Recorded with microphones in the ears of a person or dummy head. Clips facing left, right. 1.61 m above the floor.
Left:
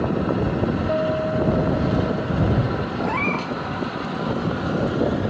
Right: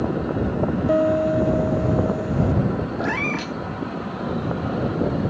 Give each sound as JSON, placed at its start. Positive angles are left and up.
{"t": 0.9, "sound": "a piano", "side_deg": -45}
{"t": 3.0, "sound": "a cat meowing", "side_deg": -20}